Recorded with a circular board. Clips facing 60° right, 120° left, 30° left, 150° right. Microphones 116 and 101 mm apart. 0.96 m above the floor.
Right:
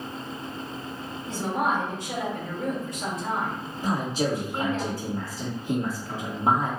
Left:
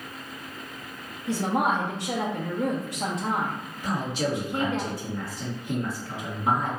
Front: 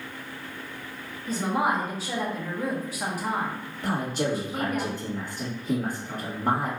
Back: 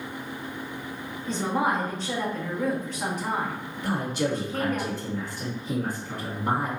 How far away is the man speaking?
About 1.6 m.